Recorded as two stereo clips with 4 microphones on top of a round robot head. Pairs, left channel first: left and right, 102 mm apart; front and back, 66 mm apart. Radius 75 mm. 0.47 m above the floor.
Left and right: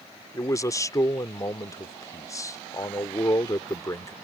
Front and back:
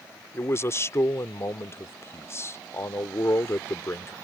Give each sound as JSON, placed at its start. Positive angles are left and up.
{"t": 0.3, "sound": "a man speaking", "azimuth_deg": 40}